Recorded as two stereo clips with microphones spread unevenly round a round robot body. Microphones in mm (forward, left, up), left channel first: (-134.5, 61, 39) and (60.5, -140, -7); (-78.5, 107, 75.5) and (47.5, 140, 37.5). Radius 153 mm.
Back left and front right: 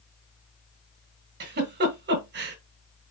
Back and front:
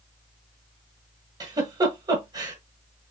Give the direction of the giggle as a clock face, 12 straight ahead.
12 o'clock.